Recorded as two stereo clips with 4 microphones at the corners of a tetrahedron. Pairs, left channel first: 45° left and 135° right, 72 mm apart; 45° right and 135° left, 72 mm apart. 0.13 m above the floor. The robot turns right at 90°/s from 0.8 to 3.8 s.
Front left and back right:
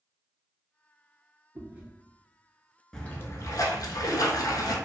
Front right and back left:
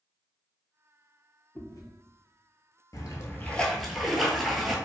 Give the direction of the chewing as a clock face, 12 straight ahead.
3 o'clock.